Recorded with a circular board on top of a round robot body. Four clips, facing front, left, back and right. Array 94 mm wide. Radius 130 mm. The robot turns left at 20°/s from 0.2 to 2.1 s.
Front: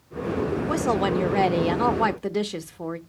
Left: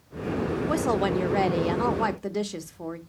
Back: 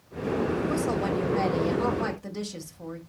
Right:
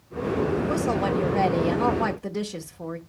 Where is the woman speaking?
40° left, 0.9 m; by 3.0 s 10° left, 0.9 m.